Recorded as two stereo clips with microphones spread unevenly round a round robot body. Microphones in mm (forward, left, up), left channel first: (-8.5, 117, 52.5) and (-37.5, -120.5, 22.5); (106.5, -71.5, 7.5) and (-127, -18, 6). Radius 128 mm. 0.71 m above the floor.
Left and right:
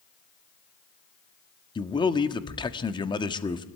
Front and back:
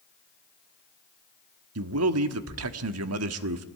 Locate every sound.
1.8 s a man speaking: 155° left, 1.3 m